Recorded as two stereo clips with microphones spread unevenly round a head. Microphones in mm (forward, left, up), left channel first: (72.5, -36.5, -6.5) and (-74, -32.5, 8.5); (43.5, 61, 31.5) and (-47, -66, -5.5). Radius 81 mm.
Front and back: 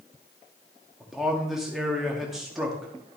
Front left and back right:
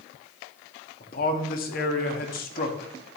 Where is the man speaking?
90° left, 1.9 m.